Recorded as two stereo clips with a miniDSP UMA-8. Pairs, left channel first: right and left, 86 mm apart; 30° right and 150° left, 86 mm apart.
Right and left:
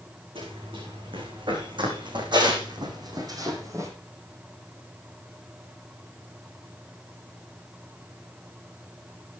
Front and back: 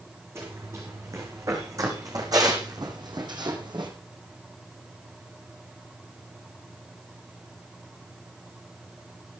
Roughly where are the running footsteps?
Left.